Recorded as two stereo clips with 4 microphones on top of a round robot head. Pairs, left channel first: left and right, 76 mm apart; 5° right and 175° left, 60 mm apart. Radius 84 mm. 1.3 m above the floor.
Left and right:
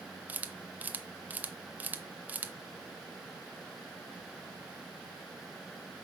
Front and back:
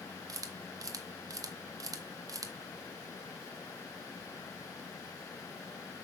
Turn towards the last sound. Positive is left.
turn(degrees=-160)